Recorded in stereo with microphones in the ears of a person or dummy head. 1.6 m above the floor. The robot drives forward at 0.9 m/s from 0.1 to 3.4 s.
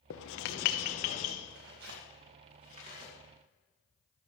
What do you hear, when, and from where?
0.1 s writing: 60° left (ahead or behind), 0.9 m; by 1.3 s 30° left (ahead or behind), 1.5 m
1.5 s tearing paper: 80° right, 1.8 m; by 3.1 s 45° right (ahead or behind), 2.5 m